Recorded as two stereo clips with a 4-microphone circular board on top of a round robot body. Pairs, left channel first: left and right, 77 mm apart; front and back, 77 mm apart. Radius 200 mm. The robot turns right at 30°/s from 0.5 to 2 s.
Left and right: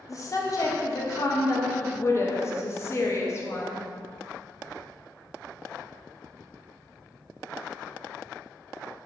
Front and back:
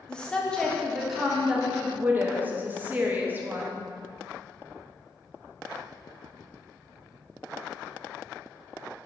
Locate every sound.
0.1 s a woman speaking: 75° left, 0.7 m; by 3.9 s 120° left, 0.7 m